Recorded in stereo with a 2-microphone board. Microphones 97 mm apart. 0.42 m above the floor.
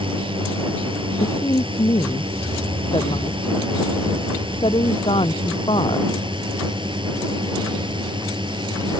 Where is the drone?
60° right (ahead or behind); by 9.0 s 55° right (ahead or behind).